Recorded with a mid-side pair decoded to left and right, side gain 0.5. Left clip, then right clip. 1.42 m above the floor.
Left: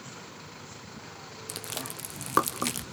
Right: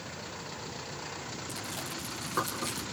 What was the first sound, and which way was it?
Chewing, 65° left.